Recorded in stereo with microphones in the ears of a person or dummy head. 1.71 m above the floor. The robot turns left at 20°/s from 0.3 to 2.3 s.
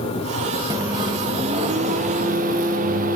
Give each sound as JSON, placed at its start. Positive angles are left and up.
{"t": 0.7, "sound": "a microwave", "azimuth_deg": -20, "distance_m": 1.4}